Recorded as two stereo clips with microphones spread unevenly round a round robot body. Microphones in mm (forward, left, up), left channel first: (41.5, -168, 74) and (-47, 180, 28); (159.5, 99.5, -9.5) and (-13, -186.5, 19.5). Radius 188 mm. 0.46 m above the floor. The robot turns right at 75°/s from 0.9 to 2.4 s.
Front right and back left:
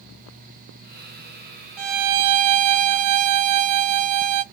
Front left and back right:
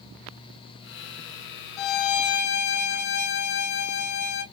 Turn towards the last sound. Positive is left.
turn(degrees=120)